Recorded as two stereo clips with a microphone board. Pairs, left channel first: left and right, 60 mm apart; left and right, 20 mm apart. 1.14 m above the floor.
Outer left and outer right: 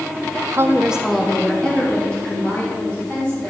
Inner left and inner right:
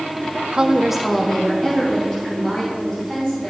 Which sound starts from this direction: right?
A woman speaking, at 0.5 s.